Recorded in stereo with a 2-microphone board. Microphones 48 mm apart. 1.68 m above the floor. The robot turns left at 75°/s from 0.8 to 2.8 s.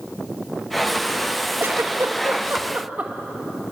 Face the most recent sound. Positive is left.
turn(degrees=-35)  # may be behind; listen again after turning